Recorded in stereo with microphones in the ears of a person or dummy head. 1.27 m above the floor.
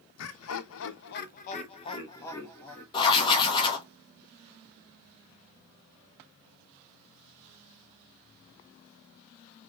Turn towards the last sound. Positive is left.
turn(degrees=35)  # may be behind; listen again after turning